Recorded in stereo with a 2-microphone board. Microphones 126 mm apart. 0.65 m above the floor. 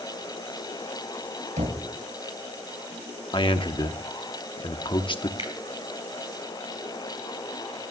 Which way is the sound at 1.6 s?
70° right (ahead or behind).